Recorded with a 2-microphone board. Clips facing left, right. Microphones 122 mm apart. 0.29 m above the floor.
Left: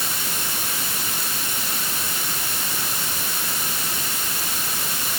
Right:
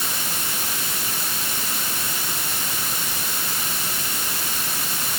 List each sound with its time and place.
Only background noise.